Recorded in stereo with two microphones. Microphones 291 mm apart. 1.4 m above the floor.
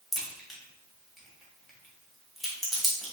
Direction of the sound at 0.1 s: Centre (ahead or behind).